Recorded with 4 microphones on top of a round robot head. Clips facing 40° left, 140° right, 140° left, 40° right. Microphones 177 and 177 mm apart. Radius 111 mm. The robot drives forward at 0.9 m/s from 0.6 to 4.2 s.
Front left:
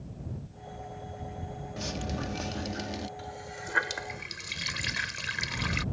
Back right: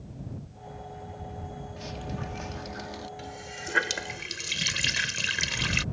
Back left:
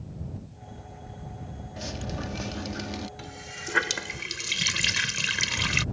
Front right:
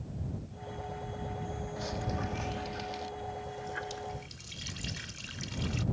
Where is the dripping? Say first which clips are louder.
Front left 3 dB, back left 2 dB; 75° left; by 3.1 s 110° left.